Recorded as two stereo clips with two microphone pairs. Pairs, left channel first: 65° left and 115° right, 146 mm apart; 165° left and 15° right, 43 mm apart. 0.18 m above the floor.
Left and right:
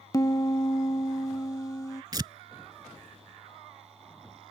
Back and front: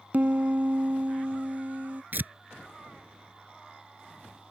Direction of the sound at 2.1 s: 55° right.